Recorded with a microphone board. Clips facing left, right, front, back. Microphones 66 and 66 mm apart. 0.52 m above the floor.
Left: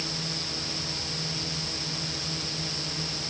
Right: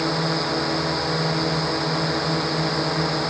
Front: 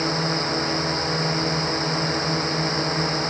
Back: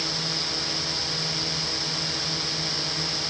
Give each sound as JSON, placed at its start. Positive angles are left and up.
{"t": 0.0, "sound": "a drone", "azimuth_deg": -55}